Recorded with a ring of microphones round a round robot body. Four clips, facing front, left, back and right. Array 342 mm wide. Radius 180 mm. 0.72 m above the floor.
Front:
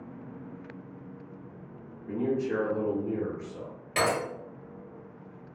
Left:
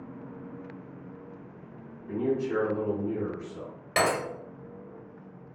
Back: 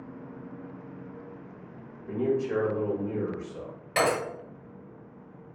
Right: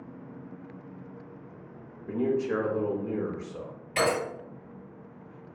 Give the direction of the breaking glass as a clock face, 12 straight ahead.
8 o'clock.